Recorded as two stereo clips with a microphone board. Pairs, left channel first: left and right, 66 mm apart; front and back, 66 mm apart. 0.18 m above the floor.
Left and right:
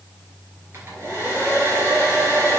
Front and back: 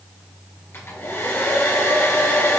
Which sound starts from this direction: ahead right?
A hair dryer, at 0.7 s.